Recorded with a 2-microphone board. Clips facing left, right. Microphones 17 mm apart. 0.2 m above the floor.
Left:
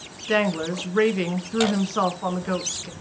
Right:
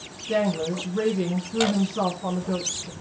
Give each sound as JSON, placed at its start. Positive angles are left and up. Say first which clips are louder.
{"t": 0.3, "sound": "a woman speaking", "louder": "left 2 dB", "side_deg": 45, "distance_m": 2.0}